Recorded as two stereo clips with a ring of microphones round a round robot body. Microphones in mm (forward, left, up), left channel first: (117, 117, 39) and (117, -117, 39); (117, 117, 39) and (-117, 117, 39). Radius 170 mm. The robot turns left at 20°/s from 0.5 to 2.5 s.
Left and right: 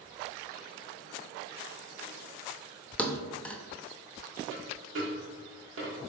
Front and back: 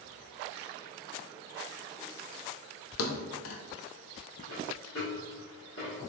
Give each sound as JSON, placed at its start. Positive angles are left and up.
{"t": 3.0, "sound": "a thud", "azimuth_deg": 5, "distance_m": 0.6}
{"t": 4.5, "sound": "a dropped coin", "azimuth_deg": -60, "distance_m": 1.2}